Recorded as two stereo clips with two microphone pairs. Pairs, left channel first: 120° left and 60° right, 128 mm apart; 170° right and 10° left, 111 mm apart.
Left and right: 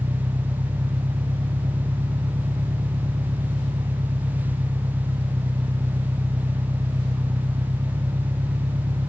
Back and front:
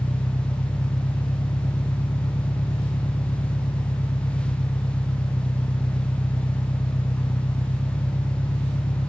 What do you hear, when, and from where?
0.0 s an engine running: 115° right